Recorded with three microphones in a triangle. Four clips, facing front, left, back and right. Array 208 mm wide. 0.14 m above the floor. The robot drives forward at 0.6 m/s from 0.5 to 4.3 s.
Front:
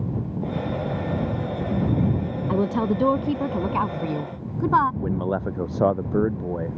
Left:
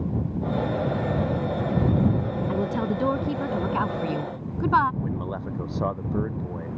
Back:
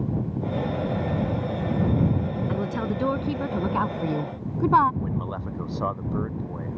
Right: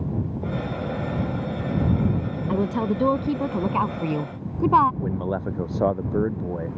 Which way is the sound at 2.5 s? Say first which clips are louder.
Right 4 dB, front 10 dB; 25° right.